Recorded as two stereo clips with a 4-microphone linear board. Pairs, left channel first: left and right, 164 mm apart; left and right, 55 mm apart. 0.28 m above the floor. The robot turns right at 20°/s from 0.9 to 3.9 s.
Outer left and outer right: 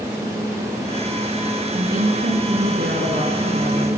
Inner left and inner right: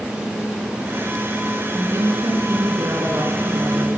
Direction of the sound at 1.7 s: 110° right.